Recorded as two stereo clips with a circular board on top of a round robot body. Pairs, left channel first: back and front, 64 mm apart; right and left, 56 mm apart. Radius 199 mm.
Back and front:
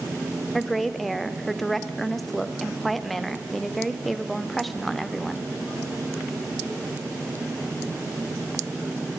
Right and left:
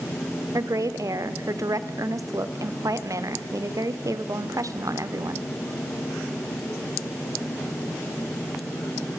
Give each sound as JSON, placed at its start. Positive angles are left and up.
{"t": 0.5, "sound": "a woman speaking", "azimuth_deg": 95, "distance_m": 1.8}